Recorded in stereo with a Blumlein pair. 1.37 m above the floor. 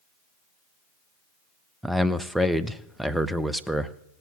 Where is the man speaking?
5° right, 0.7 m.